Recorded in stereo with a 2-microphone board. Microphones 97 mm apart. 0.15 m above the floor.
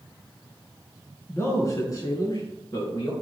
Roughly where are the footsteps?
No footsteps in this recording.